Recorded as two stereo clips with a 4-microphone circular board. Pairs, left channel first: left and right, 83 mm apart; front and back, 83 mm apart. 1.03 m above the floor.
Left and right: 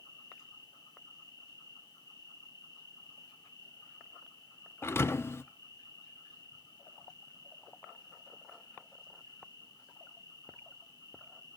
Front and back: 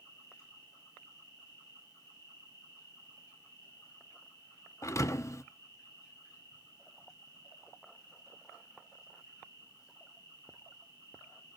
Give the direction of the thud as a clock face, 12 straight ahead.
11 o'clock.